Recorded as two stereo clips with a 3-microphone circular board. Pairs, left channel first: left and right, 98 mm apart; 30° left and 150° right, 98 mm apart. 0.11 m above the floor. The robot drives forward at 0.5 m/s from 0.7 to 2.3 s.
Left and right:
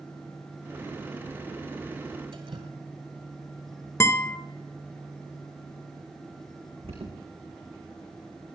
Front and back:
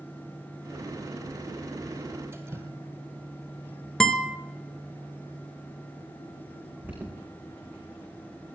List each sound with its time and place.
2.3 s dripping: 90° right, 2 m
4.0 s a guitar: 110° left, 1.0 m
6.8 s an alarm: 80° right, 7.5 m